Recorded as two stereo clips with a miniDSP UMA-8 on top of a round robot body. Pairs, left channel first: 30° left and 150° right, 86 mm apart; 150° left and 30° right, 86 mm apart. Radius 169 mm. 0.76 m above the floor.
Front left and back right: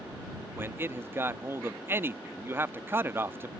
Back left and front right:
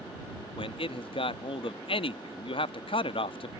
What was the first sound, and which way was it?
A man speaking, 145° left.